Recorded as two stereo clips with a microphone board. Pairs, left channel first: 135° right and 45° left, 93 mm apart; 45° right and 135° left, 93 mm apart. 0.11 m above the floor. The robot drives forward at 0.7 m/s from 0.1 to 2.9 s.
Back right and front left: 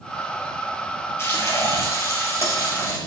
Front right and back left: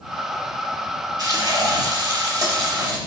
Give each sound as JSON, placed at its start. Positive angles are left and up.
{"t": 1.2, "sound": "frying", "azimuth_deg": 170, "distance_m": 2.5}